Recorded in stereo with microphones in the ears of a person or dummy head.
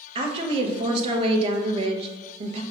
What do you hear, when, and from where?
0.1 s a woman speaking: 35° right (ahead or behind), 0.9 m